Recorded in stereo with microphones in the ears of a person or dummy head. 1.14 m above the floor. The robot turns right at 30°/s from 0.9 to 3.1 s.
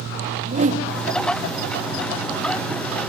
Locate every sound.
0.4 s a whoosh: 35° right (ahead or behind), 1.8 m